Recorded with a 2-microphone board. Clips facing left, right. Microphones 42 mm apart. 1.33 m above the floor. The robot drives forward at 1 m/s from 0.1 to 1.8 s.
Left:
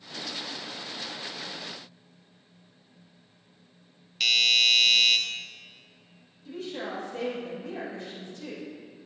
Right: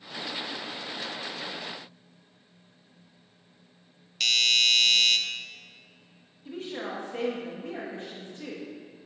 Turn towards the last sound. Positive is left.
turn(degrees=-40)  # may be behind; listen again after turning